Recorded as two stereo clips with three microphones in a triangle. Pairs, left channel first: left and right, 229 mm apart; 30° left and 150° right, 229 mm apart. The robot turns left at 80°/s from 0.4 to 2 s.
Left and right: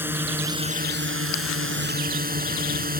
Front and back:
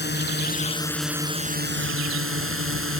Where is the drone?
10° right; by 3.0 s 140° right.